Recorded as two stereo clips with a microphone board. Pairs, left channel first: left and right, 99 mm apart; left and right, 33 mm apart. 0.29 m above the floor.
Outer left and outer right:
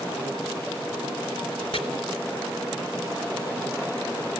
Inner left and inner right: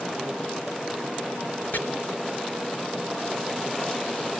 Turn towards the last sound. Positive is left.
turn(degrees=70)  # may be behind; listen again after turning